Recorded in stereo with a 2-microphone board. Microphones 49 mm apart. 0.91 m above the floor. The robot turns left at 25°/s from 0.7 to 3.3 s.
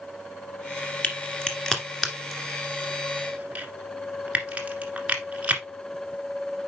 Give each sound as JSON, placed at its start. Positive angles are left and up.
{"t": 1.0, "sound": "a crack", "side_deg": 25, "distance_m": 1.7}